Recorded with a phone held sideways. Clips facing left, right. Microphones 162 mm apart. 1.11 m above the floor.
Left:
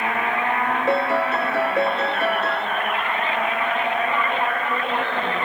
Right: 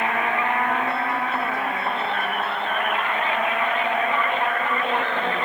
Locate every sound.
0.9 s a piano: 70° left (ahead or behind)